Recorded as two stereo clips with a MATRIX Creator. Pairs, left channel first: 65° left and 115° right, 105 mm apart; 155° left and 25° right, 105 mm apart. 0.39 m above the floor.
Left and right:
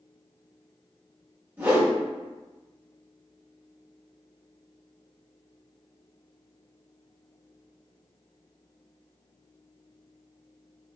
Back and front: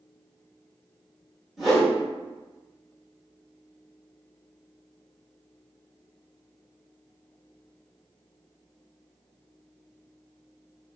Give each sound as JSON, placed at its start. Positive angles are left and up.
{"t": 1.6, "sound": "a whoosh", "azimuth_deg": -105, "distance_m": 1.2}